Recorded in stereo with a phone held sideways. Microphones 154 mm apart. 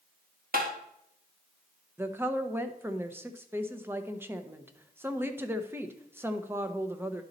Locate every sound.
0.5 s tapping: 75° right (ahead or behind), 1.3 m
2.0 s a woman speaking: 15° right (ahead or behind), 0.7 m